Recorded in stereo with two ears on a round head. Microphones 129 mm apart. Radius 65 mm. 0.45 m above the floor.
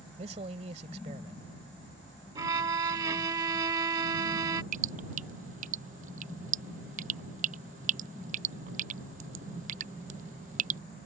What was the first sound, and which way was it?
A man speaking, 45° right (ahead or behind).